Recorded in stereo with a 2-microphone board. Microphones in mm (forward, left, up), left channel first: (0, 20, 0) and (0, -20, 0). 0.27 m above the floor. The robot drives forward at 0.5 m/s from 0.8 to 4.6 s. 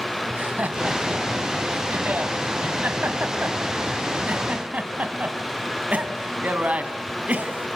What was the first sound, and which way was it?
Laughter, 45° right (ahead or behind).